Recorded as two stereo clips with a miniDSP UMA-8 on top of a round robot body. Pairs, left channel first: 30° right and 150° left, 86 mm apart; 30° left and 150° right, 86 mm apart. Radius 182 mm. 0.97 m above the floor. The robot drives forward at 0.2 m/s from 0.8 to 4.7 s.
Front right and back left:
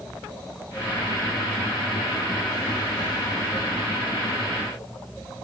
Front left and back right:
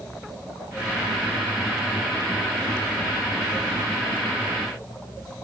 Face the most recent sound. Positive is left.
No sound to turn to.